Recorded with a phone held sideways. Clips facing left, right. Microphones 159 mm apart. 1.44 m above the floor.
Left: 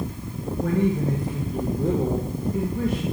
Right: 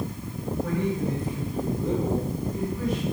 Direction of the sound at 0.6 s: 60° left (ahead or behind).